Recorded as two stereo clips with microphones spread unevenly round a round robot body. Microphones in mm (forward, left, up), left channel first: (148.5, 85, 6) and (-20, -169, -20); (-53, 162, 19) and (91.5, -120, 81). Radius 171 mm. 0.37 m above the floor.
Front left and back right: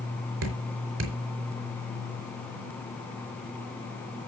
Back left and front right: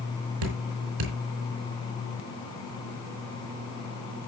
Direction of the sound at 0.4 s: 80° right.